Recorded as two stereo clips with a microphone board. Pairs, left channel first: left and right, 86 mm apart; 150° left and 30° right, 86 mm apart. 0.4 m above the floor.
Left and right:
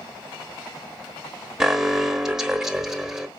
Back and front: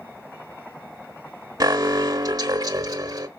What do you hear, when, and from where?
1.6 s an alarm: 5° right, 1.2 m